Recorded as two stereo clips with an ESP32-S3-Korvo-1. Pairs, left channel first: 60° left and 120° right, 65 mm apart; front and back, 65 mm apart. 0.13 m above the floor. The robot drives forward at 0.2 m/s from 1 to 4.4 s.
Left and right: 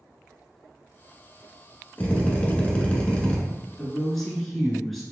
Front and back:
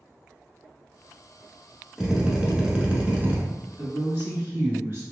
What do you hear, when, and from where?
2.0 s a drill: 100° left, 0.9 m; by 3.4 s 125° left, 0.9 m
3.8 s a woman speaking: 145° left, 1.3 m; by 5.0 s 150° left, 1.4 m